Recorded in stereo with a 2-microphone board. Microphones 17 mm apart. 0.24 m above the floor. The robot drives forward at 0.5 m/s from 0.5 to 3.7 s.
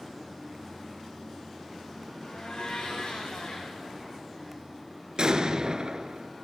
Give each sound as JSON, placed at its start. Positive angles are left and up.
{"t": 2.2, "sound": "a blender", "side_deg": 85, "distance_m": 8.5}
{"t": 5.2, "sound": "an explosion", "side_deg": -55, "distance_m": 2.0}